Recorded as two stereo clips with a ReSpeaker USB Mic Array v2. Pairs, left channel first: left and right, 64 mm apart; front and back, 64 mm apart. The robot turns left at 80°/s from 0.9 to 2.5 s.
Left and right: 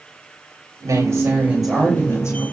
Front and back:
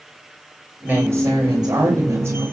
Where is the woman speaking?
115° right, 7.5 m; by 2.4 s 120° left, 7.5 m.